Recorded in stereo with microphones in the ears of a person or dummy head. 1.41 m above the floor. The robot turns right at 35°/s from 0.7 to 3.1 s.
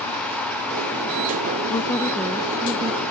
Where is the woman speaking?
155° left; by 3.0 s 160° right.